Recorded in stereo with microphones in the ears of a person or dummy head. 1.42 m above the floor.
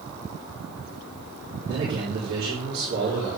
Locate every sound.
1.7 s a man speaking: 50° right (ahead or behind), 4 m